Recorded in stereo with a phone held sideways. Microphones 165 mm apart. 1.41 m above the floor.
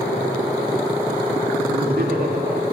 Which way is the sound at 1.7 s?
70° right (ahead or behind).